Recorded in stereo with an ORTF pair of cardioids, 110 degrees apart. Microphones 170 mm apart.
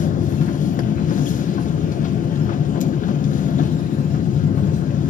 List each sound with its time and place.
0.0 s a machine running: 50° left, 0.9 m